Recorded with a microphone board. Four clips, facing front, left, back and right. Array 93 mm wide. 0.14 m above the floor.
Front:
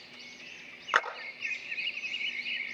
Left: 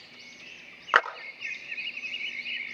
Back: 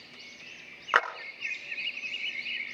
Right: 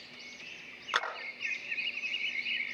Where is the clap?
100° left, 1.4 m.